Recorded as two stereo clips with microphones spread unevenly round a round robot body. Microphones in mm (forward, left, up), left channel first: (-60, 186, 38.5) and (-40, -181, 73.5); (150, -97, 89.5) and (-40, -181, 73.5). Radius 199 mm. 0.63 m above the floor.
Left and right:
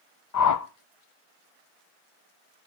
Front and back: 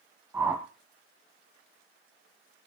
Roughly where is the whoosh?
Behind left.